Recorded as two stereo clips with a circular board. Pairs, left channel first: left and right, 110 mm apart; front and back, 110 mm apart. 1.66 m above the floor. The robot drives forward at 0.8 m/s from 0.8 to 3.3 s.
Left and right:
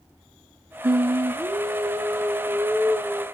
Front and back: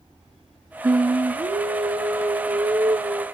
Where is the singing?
120° right, 0.8 m; by 3.2 s 165° right, 2.5 m.